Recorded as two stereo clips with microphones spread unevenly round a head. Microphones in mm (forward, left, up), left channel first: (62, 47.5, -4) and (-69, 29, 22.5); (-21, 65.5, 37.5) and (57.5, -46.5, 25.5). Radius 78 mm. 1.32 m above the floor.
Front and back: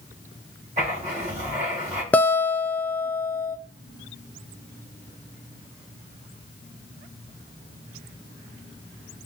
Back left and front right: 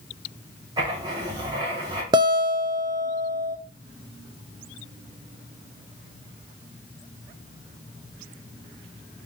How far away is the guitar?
About 0.5 m.